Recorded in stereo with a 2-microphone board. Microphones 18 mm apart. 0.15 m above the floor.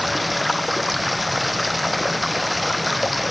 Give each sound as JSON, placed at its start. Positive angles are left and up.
{"t": 0.0, "sound": "running water", "side_deg": 0, "distance_m": 1.1}